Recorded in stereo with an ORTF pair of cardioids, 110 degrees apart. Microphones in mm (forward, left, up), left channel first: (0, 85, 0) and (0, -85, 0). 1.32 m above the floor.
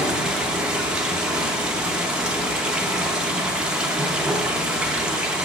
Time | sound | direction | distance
0.0 | running water | 5° right | 0.9 m